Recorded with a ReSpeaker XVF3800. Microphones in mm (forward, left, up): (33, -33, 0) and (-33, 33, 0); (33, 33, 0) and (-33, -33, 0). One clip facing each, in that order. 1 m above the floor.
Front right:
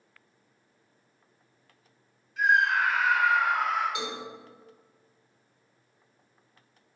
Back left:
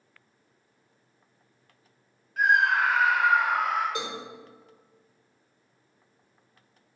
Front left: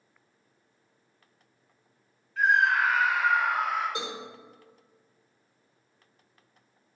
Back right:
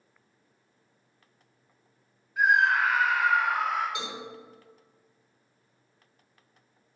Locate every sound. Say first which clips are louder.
2.4 s a scream: back left 1 dB, even; 155° left, 0.6 m; by 3.9 s 125° left, 2 m
4.0 s a cowbell: back left 1 dB, front left 1 dB; 90° left, 1.9 m